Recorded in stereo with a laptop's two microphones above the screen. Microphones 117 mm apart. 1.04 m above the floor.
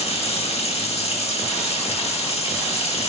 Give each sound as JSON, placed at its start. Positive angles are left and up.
{"t": 0.0, "sound": "running water", "side_deg": 55, "distance_m": 1.9}